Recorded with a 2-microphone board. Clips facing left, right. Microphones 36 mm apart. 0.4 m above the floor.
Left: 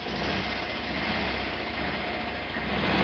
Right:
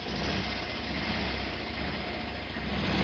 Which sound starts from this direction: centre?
A motorcycle, at 0.0 s.